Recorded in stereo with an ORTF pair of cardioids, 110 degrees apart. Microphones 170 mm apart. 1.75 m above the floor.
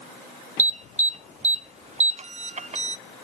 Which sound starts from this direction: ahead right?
An alarm, at 0.6 s.